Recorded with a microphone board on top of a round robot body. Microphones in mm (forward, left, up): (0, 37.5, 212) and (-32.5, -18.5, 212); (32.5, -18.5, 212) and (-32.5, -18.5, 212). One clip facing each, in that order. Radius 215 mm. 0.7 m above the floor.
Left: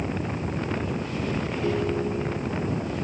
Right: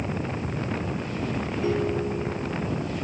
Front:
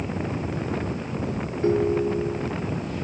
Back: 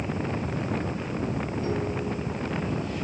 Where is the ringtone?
40° right, 1.4 m.